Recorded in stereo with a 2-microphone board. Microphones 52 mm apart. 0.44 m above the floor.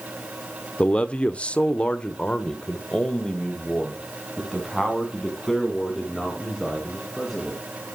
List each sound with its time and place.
0.8 s a man speaking: 20° left (ahead or behind), 0.8 m; by 7.6 s 10° left (ahead or behind), 5 m